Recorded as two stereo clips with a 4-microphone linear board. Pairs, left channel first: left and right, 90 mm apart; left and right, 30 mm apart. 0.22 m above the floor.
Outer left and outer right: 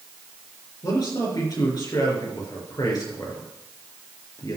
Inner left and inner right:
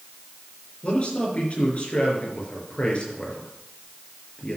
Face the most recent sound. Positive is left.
turn(degrees=45)  # may be behind; listen again after turning